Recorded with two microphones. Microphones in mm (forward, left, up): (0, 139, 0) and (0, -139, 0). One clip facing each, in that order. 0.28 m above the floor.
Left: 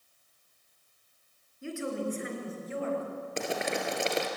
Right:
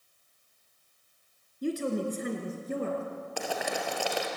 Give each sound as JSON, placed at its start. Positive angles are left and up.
{"t": 1.6, "sound": "a woman speaking", "side_deg": -40, "distance_m": 4.0}
{"t": 3.4, "sound": "boiling", "side_deg": 25, "distance_m": 2.5}